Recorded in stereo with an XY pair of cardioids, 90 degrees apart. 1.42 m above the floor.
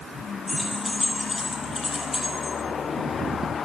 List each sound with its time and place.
0.5 s keys jangling: 20° left, 10 m; by 2.5 s 35° left, 9 m